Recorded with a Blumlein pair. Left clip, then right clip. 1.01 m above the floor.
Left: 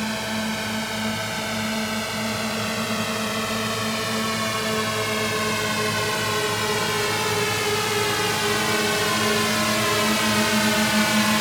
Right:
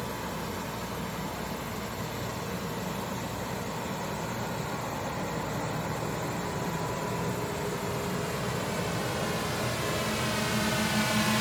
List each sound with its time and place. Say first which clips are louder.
0.0 s a drone: left 9 dB; 50° left; by 11.4 s 20° left